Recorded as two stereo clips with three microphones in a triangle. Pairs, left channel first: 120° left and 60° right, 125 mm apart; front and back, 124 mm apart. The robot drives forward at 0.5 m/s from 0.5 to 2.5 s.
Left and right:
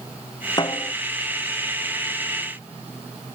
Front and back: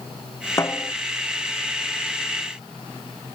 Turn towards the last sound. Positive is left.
turn(degrees=80)